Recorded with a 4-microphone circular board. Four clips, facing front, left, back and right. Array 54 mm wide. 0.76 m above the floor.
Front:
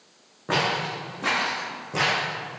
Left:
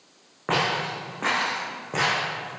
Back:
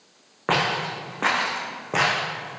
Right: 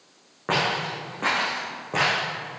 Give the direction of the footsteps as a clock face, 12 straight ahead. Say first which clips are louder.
Even, back 2 dB; 6 o'clock.